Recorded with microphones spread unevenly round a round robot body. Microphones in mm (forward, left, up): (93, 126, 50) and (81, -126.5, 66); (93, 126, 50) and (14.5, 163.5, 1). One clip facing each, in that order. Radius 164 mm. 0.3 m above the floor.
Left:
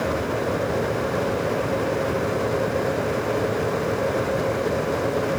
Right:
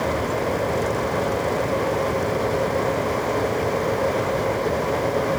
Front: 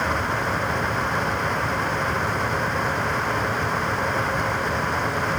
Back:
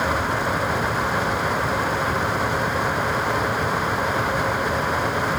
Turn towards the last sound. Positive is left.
No sound to turn to.